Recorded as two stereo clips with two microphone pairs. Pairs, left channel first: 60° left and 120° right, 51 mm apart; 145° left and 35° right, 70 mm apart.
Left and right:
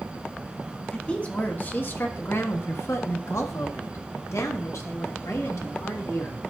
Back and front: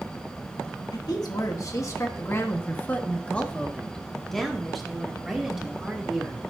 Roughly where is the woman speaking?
Behind left.